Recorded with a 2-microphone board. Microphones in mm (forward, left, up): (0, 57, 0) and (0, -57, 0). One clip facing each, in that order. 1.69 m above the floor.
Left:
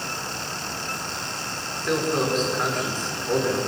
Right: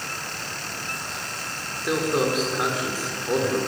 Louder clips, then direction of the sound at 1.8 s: Right 1 dB; 10° right (ahead or behind).